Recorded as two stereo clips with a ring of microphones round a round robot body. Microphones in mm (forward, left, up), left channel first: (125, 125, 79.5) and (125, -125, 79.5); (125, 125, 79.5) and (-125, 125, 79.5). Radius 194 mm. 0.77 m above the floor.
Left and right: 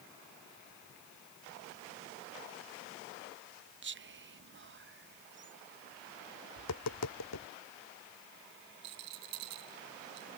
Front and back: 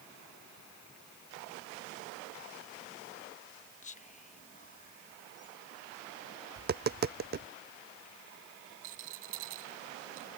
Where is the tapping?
125° left.